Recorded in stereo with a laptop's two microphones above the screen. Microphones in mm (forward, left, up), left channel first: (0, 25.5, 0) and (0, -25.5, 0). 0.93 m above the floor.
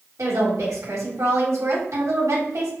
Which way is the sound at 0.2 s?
70° right (ahead or behind).